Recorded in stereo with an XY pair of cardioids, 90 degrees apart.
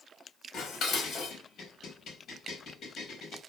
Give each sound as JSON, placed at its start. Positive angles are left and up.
{"t": 0.5, "sound": "dishes clattering", "azimuth_deg": 70, "distance_m": 4.5}